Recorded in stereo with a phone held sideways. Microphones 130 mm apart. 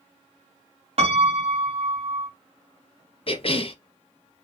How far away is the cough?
About 0.6 m.